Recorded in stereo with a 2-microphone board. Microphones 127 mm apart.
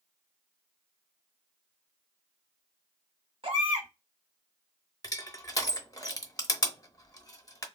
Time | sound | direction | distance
3.4 | a baby crying | 50° right (ahead or behind) | 1.1 m
5.0 | crushing | 30° left (ahead or behind) | 0.7 m